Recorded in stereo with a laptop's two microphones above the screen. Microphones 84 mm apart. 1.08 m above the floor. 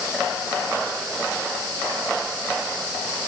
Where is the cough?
I don't hear a cough.